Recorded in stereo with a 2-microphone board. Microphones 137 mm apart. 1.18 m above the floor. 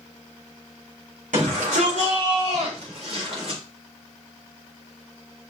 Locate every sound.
1.3 s a shout: 75° right (ahead or behind), 4.5 m; by 3.6 s 50° right (ahead or behind), 5 m